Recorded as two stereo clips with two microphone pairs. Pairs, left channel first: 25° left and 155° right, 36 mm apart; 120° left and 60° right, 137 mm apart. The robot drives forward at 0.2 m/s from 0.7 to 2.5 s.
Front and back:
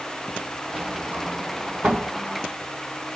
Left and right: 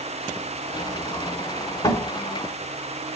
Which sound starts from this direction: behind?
A sliding door, at 0.7 s.